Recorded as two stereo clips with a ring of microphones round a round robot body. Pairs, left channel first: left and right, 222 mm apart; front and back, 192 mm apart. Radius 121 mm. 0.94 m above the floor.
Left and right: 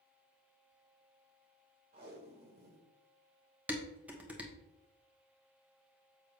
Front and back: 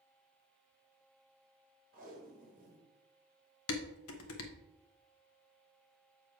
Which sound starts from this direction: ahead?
Dishes clattering, at 3.7 s.